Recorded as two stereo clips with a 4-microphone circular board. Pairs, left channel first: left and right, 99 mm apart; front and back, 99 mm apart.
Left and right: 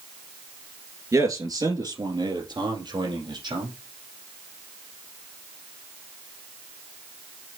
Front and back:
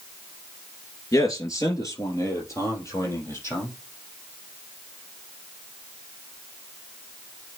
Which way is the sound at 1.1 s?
45° right.